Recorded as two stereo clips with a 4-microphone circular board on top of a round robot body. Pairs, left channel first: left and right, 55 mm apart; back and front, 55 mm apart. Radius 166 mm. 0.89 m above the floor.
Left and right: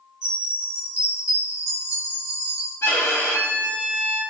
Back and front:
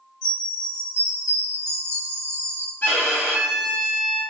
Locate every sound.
0.2 s a chime: 160° right, 1.9 m
2.8 s a violin: 130° left, 0.8 m